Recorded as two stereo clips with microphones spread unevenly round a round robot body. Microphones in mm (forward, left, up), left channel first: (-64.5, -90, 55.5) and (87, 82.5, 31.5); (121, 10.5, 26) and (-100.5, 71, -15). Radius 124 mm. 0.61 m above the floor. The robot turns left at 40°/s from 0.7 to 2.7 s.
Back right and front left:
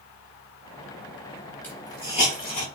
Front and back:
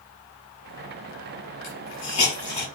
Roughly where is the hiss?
Ahead right.